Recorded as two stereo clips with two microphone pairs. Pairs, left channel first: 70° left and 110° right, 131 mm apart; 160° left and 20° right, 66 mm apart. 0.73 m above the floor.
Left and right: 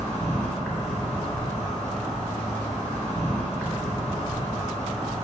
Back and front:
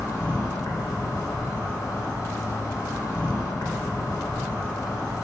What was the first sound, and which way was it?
An insect, 155° left.